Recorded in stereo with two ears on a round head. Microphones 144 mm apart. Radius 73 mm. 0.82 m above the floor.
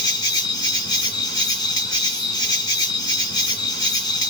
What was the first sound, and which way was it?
An insect, 30° left (ahead or behind).